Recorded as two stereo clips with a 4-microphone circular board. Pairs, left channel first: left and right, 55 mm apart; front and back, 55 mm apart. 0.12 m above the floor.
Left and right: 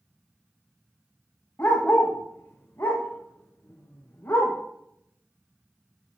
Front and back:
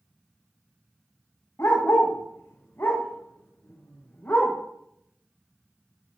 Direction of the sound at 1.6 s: 45° left.